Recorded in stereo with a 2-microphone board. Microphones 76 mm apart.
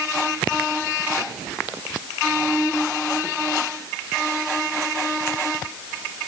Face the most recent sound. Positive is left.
No sound to turn to.